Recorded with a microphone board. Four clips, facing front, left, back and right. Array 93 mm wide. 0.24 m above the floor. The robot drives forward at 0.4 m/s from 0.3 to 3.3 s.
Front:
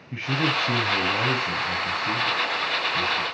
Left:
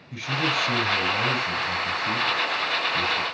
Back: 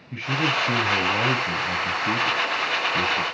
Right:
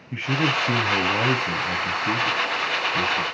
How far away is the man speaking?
About 1.3 m.